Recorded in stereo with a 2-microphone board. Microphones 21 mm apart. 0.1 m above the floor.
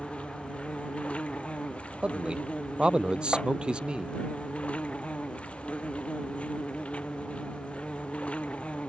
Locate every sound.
0.0 s an insect: 80° left
2.0 s a man speaking: 50° right (ahead or behind)
3.3 s tapping: centre (ahead or behind)